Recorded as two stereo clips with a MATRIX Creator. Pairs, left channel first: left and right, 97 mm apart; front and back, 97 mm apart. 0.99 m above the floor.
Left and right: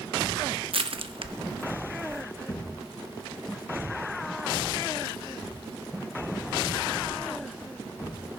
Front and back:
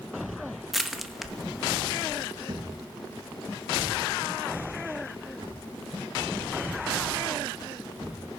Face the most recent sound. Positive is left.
turn(degrees=145)